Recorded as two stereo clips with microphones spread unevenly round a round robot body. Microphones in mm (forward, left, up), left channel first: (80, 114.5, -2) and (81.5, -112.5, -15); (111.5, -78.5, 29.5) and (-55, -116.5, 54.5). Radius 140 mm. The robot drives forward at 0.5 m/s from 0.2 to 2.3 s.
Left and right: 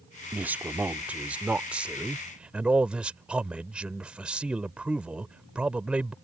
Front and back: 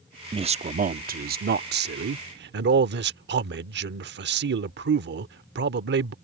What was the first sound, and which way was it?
A man speaking, 150° right.